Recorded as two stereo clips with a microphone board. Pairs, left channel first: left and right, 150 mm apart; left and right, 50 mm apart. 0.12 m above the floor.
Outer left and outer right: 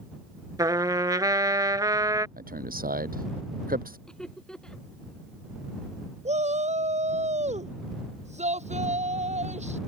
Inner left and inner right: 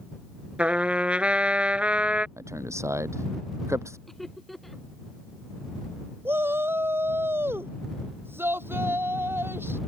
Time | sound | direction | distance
0.6 | a trumpet | 25° right (ahead or behind) | ?
2.4 | a man speaking | 75° right (ahead or behind) | ?
4.1 | laughter | 5° left (ahead or behind) | ?
6.2 | a shout | 50° right (ahead or behind) | ?